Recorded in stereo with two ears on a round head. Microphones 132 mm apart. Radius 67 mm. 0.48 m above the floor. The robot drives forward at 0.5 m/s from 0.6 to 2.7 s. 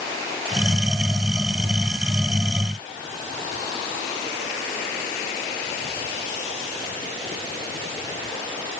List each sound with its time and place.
Only background noise.